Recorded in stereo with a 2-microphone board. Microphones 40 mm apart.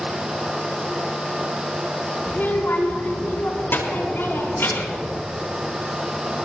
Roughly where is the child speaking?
Left.